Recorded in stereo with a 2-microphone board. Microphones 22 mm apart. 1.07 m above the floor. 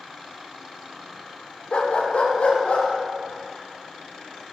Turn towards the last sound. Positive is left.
turn(degrees=70)  # may be behind; listen again after turning